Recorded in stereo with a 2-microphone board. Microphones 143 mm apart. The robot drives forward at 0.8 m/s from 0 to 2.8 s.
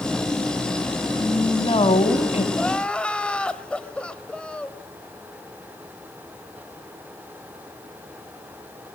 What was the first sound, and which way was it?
A woman speaking, 35° left (ahead or behind).